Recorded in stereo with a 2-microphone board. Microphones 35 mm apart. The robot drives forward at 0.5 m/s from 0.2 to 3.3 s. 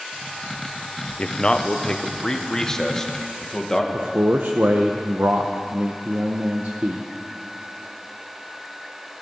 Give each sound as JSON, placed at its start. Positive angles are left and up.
{"t": 1.2, "sound": "a man speaking", "side_deg": 30, "distance_m": 0.7}
{"t": 3.9, "sound": "a man speaking", "side_deg": -65, "distance_m": 0.7}